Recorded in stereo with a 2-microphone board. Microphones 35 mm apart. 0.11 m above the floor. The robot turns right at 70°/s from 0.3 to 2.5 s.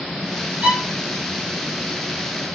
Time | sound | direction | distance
0.6 | a violin | 40° right (ahead or behind) | 1.3 m